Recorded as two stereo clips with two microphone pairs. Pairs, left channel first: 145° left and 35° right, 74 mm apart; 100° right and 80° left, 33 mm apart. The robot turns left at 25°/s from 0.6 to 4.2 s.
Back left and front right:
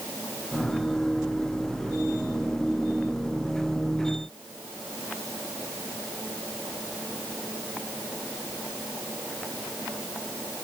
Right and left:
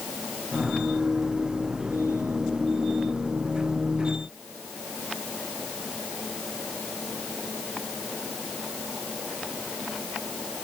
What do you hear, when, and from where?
Only background noise.